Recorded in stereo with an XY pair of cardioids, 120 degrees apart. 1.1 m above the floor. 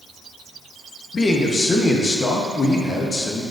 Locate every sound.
1.1 s a man speaking: 30° left, 0.9 m